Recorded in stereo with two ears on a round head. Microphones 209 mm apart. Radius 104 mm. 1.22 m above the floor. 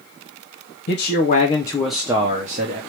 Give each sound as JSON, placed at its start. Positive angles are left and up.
{"t": 0.9, "sound": "a man speaking", "side_deg": 50, "distance_m": 0.8}